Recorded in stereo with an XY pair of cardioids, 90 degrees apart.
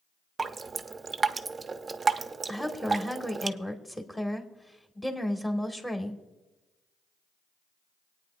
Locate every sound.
0.4 s dripping: 35° right, 0.6 m
2.5 s a woman speaking: 10° left, 1.8 m